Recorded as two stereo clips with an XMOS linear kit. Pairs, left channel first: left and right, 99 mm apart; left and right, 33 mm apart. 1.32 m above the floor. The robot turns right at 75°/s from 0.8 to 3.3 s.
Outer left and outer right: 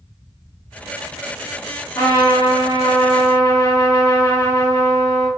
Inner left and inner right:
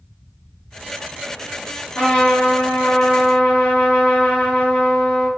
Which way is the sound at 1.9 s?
20° left.